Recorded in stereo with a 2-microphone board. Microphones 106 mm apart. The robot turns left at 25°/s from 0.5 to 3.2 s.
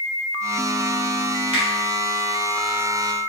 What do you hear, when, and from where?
1.5 s a finger snap: 80° right, 1.3 m